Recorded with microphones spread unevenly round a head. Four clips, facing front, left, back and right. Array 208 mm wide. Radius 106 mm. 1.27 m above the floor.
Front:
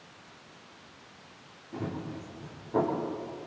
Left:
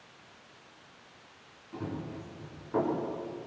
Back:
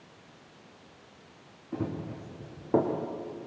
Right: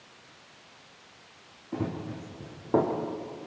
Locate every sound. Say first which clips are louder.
1.7 s running footsteps: right 5 dB, back 2 dB; 125° right, 5 m; by 2.9 s 140° right, 5 m